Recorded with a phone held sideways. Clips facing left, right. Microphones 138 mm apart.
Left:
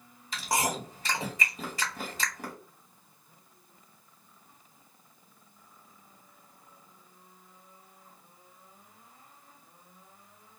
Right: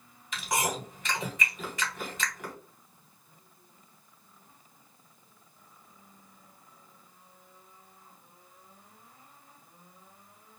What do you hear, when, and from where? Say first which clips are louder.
0.3 s chewing: left 1 dB; 35° left (ahead or behind), 1.1 m